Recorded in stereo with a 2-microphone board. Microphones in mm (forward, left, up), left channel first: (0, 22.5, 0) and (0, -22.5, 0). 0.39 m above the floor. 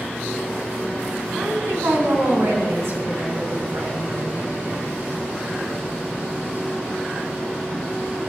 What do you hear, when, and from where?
1.3 s a woman speaking: 65° right (ahead or behind), 3.5 m; by 4.4 s 70° right (ahead or behind), 5.5 m